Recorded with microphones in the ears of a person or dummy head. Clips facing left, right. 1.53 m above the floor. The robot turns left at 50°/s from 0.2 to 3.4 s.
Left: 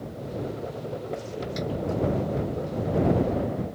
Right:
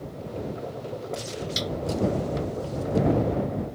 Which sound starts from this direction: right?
A snare drum, at 1.6 s.